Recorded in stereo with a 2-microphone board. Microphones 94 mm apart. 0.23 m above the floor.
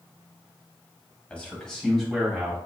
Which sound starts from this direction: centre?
A man speaking, at 1.3 s.